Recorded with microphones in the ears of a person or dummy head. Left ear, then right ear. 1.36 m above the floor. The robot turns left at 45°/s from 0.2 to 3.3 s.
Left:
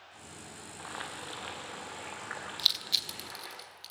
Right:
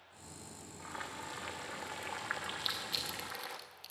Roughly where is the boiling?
Ahead left.